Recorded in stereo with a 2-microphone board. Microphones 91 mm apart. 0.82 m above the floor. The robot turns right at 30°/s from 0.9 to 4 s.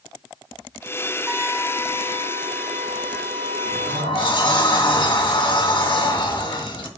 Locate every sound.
1.3 s a trumpet: 160° right, 1.9 m; by 4.4 s 75° right, 1.9 m
3.6 s a sliding door: 70° left (ahead or behind), 2.5 m; by 6.9 s 60° left (ahead or behind), 2.5 m